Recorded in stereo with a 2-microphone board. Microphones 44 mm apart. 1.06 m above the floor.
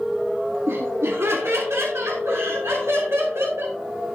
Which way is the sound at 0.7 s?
65° right (ahead or behind).